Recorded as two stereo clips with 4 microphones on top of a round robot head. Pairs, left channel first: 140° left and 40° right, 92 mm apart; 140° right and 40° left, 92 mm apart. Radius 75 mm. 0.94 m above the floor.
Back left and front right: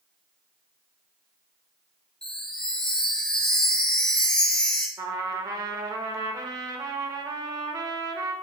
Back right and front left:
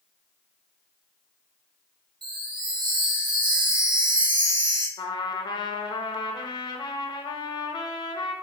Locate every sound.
2.2 s a chime: 60° left, 1.1 m
5.0 s a trumpet: 95° right, 0.6 m